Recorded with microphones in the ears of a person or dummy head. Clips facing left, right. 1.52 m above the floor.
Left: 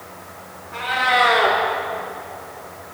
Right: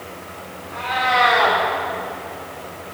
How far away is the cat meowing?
About 1.7 m.